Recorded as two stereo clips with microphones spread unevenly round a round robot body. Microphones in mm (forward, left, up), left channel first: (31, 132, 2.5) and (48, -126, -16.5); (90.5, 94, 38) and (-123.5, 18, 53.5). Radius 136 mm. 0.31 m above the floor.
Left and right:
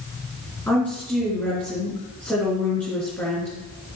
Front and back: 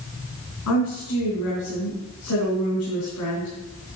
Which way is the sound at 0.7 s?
10° left.